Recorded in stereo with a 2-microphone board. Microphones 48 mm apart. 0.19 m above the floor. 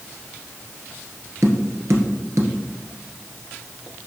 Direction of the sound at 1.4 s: 70° right (ahead or behind).